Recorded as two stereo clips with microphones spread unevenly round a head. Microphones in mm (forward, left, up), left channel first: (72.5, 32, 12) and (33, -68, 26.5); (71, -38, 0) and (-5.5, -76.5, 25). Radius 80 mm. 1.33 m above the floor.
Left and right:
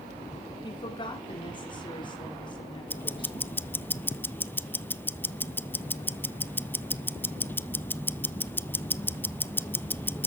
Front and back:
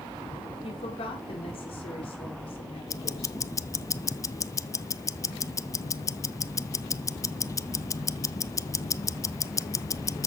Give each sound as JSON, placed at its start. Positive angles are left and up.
{"t": 0.6, "sound": "a woman speaking", "azimuth_deg": 25, "distance_m": 4.0}
{"t": 2.9, "sound": "ticking", "azimuth_deg": 5, "distance_m": 0.6}